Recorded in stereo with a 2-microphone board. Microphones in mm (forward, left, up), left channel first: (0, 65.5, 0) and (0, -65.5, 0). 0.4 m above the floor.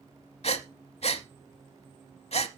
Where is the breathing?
55° left (ahead or behind), 0.8 m.